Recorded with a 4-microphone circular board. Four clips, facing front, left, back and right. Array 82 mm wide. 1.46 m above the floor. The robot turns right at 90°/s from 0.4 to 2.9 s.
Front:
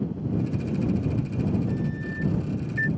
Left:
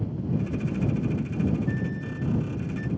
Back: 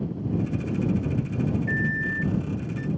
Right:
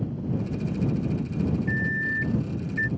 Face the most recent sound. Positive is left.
turn(degrees=-45)